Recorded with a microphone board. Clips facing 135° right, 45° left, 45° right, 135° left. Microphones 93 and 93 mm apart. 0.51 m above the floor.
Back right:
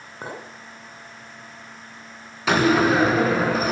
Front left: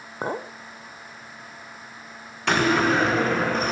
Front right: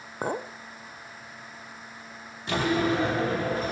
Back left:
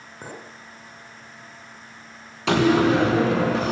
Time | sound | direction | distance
0.2 | a clink | 10° right | 0.9 m
2.5 | a door slam | 140° left | 3 m